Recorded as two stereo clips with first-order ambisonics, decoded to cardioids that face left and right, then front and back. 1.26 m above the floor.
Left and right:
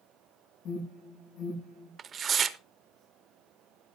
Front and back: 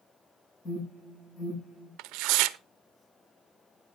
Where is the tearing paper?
155° right, 0.6 m.